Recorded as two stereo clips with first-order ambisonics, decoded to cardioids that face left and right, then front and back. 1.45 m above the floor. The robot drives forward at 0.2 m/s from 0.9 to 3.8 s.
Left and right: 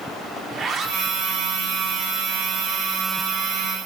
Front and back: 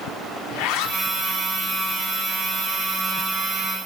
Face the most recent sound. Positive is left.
turn(degrees=-95)